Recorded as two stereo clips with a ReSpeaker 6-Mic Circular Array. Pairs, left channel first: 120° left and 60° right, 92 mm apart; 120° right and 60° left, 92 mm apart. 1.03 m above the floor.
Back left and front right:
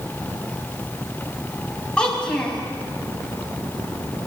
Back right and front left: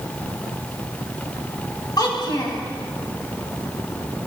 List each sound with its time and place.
2.0 s a child speaking: 160° right, 4.5 m